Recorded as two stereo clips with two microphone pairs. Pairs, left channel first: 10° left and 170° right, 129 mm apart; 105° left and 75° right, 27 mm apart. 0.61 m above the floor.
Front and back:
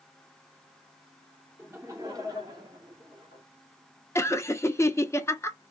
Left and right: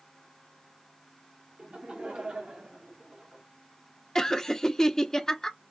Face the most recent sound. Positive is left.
turn(degrees=60)